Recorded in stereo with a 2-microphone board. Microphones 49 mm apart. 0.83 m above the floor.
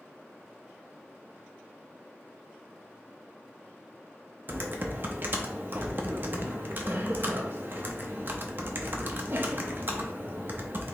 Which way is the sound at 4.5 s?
45° right (ahead or behind).